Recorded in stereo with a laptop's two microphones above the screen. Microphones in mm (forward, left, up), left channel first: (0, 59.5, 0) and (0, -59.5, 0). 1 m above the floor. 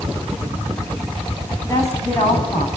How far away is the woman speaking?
About 8.5 m.